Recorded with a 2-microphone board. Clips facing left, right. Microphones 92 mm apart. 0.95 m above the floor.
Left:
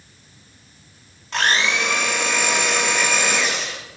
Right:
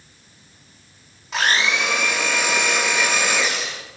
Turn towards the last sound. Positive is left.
turn(degrees=-5)  # may be behind; listen again after turning